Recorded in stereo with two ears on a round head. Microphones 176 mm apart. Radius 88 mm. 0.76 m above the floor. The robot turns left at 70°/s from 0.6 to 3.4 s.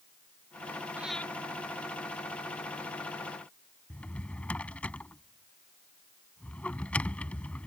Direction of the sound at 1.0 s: 10° right (ahead or behind).